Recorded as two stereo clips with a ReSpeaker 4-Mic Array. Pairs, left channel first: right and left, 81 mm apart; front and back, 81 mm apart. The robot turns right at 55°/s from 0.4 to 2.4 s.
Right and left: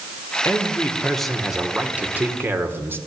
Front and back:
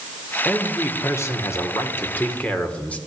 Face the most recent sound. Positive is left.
turn(degrees=60)